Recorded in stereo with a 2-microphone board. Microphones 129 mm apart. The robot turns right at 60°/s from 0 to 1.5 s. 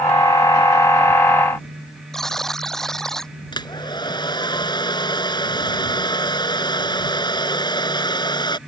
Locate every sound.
2.1 s a buzzer: 5° left (ahead or behind)
3.5 s a hair dryer: 35° left (ahead or behind)